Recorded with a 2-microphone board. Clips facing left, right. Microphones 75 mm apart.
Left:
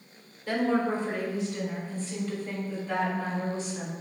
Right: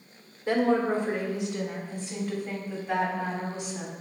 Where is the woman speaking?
25° right (ahead or behind), 1.8 m; by 3.9 s 15° right (ahead or behind), 4.5 m.